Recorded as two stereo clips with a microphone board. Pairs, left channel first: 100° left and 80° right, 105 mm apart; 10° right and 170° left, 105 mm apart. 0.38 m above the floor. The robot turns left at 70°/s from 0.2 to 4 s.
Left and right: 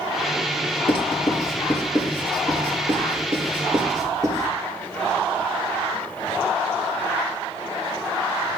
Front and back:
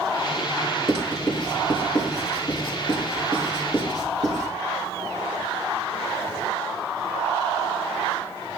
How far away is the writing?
About 4.5 m.